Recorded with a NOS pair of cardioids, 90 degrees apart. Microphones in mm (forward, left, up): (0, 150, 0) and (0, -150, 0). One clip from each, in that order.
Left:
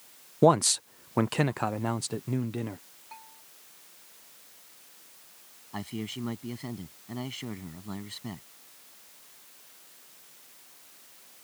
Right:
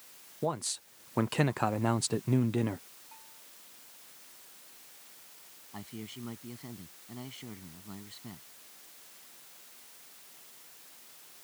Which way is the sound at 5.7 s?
55° left.